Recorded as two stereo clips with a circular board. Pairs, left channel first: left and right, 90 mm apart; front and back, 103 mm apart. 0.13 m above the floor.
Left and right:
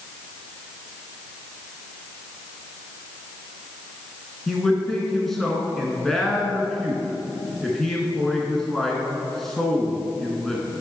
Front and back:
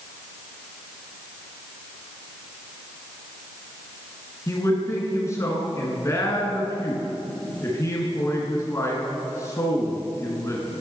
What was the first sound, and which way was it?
A man speaking, 5° left.